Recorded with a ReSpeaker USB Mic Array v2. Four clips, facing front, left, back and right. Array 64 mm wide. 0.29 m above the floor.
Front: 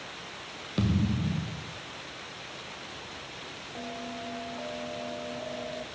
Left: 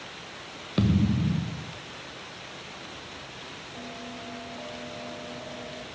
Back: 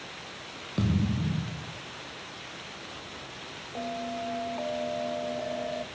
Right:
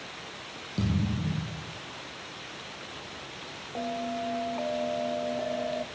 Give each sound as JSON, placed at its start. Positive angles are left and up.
{"t": 0.8, "sound": "a thud", "azimuth_deg": 80, "distance_m": 1.1}
{"t": 3.8, "sound": "a bell", "azimuth_deg": -120, "distance_m": 0.6}